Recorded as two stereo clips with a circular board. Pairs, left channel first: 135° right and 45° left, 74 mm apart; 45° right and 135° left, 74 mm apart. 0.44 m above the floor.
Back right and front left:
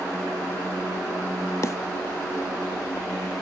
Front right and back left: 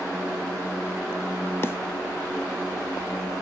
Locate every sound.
1.6 s a snare drum: 100° right